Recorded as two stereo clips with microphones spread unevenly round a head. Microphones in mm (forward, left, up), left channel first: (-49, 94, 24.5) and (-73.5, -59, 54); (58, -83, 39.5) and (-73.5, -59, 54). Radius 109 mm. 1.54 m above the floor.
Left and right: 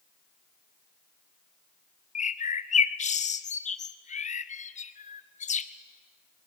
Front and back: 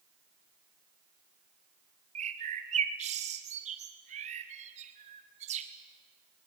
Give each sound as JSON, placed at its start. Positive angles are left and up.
{"t": 2.1, "sound": "a bird", "azimuth_deg": 120, "distance_m": 0.9}